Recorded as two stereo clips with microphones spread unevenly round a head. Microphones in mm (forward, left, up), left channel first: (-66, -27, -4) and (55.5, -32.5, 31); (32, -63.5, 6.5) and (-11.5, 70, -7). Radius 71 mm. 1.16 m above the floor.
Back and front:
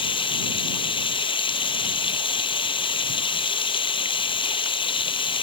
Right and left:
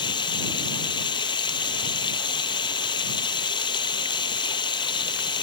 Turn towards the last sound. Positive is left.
turn(degrees=-130)